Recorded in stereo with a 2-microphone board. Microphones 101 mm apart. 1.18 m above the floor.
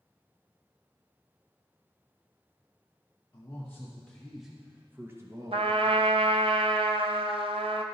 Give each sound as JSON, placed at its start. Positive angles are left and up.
{"t": 3.3, "sound": "a man speaking", "side_deg": 30, "distance_m": 1.0}
{"t": 5.5, "sound": "a trumpet", "side_deg": -65, "distance_m": 0.7}